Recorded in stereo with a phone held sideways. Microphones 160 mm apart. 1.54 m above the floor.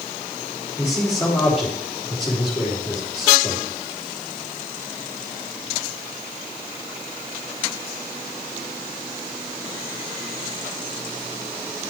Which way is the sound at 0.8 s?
Centre (ahead or behind).